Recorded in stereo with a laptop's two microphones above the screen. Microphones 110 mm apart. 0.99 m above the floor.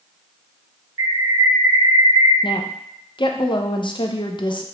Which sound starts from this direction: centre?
A bird, at 1.0 s.